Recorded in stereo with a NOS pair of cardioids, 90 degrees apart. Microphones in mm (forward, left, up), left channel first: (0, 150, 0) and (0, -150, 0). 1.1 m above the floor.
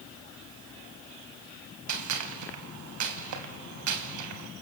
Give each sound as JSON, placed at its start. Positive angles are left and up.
{"t": 1.9, "sound": "a gunshot", "azimuth_deg": -70, "distance_m": 3.5}